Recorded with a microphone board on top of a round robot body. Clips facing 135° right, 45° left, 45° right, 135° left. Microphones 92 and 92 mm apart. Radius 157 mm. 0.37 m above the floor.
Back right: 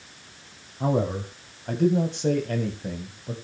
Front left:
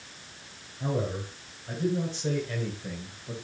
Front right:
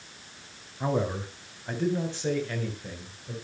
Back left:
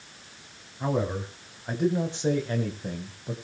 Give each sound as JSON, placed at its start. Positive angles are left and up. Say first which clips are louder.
{"t": 0.8, "sound": "a man speaking", "louder": "back right 6 dB, even", "azimuth_deg": -130, "distance_m": 3.5}